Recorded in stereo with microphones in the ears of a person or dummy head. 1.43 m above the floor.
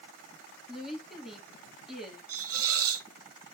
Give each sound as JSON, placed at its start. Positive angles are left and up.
{"t": 0.7, "sound": "a woman speaking", "side_deg": 0, "distance_m": 2.5}
{"t": 2.3, "sound": "a hiss", "side_deg": -75, "distance_m": 0.8}